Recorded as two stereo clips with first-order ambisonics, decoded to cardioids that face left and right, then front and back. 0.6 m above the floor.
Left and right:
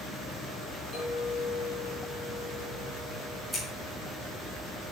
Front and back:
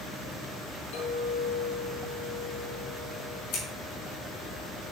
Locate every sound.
0.9 s a clink: 15° left, 4 m
3.5 s scissors: straight ahead, 4 m